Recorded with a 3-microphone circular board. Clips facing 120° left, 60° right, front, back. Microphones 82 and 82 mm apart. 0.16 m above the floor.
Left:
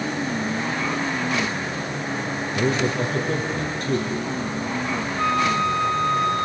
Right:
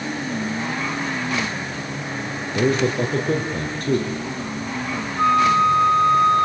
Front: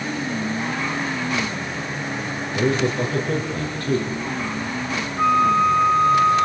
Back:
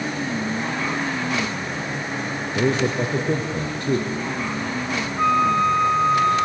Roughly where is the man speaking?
Right.